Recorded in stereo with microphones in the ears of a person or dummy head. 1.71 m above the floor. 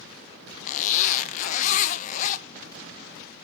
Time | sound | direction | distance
0.7 | a zipper | 40° left (ahead or behind) | 0.7 m